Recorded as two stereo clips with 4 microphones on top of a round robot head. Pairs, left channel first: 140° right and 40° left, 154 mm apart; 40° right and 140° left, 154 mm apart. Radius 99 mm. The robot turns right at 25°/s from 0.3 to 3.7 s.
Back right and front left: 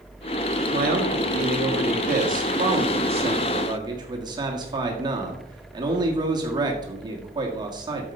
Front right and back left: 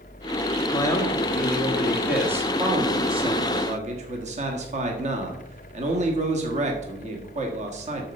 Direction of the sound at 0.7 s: 25° left.